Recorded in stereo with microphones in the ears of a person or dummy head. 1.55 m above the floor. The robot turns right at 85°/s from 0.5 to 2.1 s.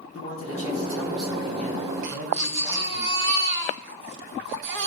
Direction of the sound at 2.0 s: 65° right (ahead or behind).